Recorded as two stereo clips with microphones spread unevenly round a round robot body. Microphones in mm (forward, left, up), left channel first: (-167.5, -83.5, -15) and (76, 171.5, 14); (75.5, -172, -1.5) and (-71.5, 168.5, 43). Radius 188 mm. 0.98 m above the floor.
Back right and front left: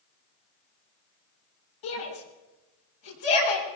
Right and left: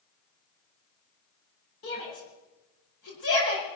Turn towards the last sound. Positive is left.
turn(degrees=-120)